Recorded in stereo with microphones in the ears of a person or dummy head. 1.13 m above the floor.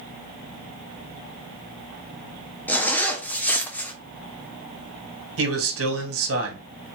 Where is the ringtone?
No ringtone in this recording.